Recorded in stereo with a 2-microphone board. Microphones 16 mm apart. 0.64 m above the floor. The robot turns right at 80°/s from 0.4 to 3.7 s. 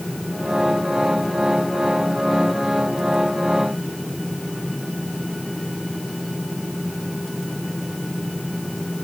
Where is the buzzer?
I don't hear a buzzer.